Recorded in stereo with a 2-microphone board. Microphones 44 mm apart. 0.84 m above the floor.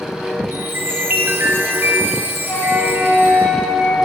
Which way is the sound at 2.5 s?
60° left (ahead or behind).